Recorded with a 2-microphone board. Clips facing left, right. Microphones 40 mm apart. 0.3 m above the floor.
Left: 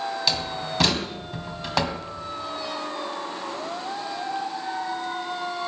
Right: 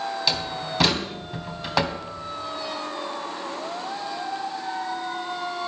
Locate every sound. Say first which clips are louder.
0.3 s a door slam: even; 5° right (ahead or behind), 1.8 m